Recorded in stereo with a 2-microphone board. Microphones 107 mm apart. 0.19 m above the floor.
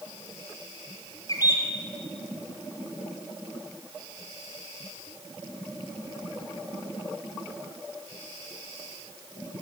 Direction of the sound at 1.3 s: 40° left (ahead or behind).